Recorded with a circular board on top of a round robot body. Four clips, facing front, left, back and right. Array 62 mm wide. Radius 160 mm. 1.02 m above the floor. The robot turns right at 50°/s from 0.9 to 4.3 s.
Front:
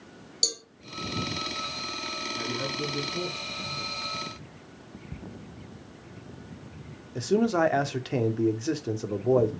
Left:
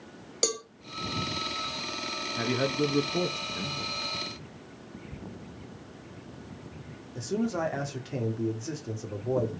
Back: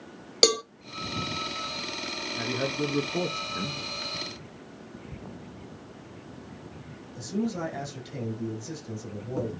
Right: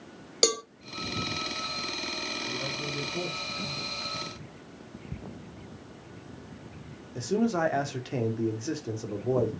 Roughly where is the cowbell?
Behind.